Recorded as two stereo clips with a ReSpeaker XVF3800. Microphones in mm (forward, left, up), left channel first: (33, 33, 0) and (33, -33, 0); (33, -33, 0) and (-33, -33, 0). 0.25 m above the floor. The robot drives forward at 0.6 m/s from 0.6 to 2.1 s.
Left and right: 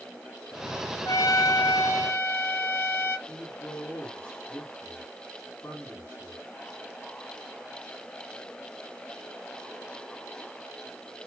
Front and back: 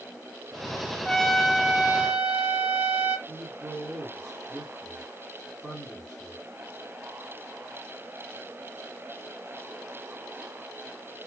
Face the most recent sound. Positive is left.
turn(degrees=145)